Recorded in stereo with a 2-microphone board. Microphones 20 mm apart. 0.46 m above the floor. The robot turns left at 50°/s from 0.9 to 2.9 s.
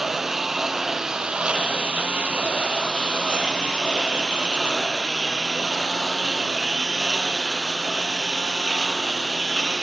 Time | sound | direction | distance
0.0 | a lawn mower | 20° right (ahead or behind) | ?